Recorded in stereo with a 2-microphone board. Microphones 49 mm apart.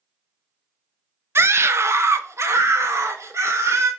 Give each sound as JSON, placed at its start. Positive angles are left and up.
{"t": 1.4, "sound": "a scream", "side_deg": -60, "distance_m": 0.8}